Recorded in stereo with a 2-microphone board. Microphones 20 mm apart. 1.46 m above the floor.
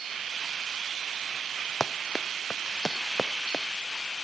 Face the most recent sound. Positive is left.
turn(degrees=30)  # may be behind; listen again after turning